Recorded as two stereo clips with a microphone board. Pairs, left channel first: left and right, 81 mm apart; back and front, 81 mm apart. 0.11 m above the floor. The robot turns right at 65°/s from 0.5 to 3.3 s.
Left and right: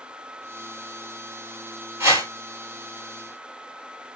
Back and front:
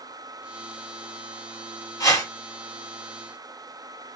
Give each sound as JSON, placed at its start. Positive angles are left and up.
{"t": 2.0, "sound": "a whoosh", "azimuth_deg": -140, "distance_m": 2.0}